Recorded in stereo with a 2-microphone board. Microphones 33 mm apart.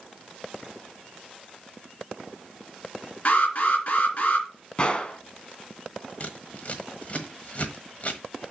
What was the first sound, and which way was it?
An alarm, 45° left (ahead or behind).